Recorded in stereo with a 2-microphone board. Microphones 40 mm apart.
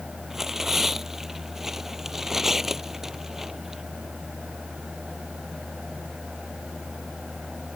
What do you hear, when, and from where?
0.3 s tearing paper: 10° right (ahead or behind)